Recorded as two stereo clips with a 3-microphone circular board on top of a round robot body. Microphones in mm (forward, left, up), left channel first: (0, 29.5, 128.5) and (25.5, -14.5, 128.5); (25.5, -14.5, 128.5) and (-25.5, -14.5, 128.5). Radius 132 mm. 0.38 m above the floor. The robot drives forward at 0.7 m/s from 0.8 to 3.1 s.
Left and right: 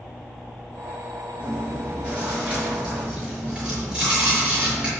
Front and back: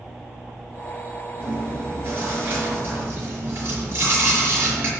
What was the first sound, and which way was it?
Chewing, 125° right.